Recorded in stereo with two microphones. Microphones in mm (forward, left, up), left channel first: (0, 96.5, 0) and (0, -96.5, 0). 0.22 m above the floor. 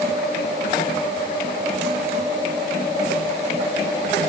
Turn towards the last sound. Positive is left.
No sound to turn to.